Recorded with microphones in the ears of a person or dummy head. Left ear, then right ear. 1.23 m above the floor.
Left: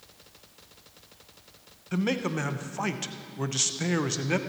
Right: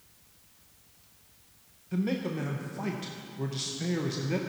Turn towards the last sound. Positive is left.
turn(degrees=45)  # may be behind; listen again after turning